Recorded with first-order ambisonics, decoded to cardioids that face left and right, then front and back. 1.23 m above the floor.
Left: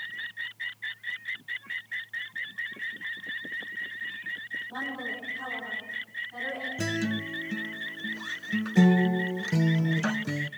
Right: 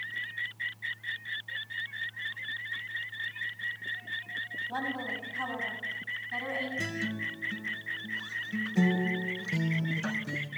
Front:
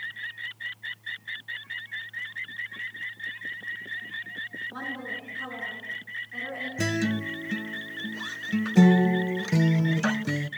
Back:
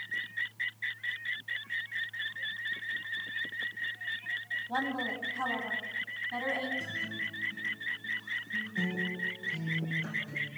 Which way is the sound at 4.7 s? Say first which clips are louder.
Even, back 1 dB; 150° right.